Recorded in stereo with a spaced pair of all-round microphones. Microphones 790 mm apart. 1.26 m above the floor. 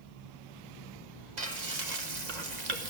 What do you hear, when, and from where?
1.4 s frying: 60° right (ahead or behind), 1.3 m